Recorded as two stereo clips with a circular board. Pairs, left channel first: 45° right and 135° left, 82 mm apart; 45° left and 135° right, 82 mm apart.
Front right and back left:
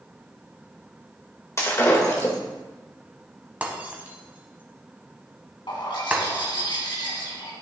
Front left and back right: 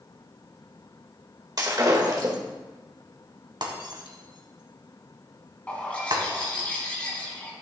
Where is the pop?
No pop in this recording.